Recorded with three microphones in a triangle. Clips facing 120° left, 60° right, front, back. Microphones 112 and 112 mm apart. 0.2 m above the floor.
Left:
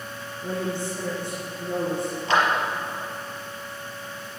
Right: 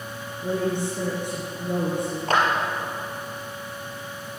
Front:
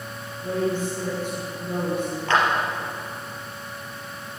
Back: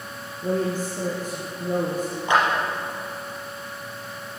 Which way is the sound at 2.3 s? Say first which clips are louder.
Even, back 1 dB; 105° right.